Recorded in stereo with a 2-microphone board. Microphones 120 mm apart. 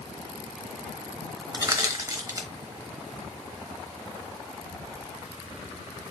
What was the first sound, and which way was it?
Crushing, 30° right (ahead or behind).